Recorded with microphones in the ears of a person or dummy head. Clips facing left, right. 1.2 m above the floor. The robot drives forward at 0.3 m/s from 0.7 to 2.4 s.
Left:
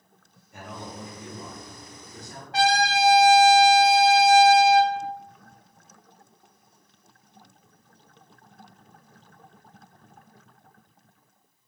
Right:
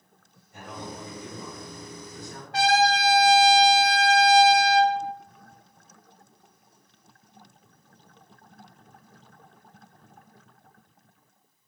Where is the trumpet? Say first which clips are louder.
Right 1 dB; 70° left (ahead or behind), 0.7 m.